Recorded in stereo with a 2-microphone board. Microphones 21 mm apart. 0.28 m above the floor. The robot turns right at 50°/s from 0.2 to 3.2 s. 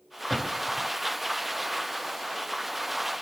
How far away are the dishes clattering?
No dishes clattering in this recording.